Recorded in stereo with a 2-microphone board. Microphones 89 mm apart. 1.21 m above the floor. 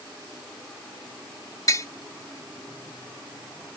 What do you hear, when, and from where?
1.7 s tapping: 40° left (ahead or behind)